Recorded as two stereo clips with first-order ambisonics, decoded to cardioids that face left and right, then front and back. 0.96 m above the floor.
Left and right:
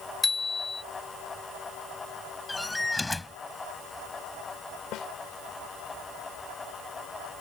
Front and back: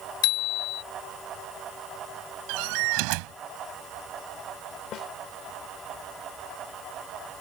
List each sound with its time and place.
0.2 s a bicycle bell: 15° left
2.5 s a door slam: 175° left
4.9 s a snare drum: 50° left